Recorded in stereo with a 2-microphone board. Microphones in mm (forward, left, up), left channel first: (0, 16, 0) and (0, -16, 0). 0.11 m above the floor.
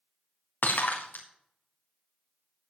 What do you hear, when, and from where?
0.6 s breaking glass: 85° left, 4 m